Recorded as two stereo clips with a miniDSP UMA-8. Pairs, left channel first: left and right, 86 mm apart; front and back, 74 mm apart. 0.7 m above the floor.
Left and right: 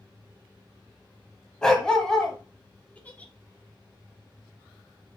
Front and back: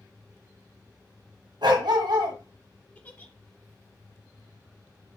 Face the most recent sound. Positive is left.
turn(degrees=40)